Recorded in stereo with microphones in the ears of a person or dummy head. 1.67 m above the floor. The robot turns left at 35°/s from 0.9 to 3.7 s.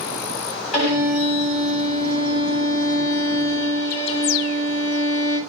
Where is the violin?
135° left, 2.5 m; by 5.4 s 35° left, 2.5 m.